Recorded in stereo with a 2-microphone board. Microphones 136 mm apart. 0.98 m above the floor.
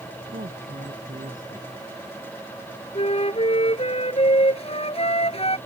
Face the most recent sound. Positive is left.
turn(degrees=50)  # may be behind; listen again after turning